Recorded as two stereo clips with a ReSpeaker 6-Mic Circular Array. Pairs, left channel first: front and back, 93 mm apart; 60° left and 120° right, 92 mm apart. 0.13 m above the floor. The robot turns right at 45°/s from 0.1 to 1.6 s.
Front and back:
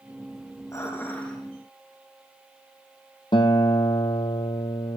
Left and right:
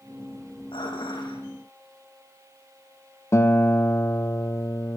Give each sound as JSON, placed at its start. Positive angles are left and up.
{"t": 0.7, "sound": "dishes clattering", "azimuth_deg": 50, "distance_m": 5.0}
{"t": 3.3, "sound": "a guitar", "azimuth_deg": 5, "distance_m": 1.6}